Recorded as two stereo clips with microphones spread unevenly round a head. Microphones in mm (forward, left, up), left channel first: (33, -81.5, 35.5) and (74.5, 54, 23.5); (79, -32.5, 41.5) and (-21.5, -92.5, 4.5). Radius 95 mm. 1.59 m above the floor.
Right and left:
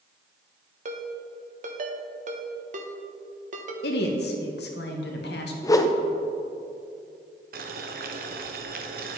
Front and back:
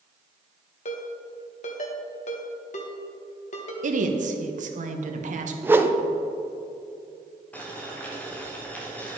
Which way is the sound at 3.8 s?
130° right.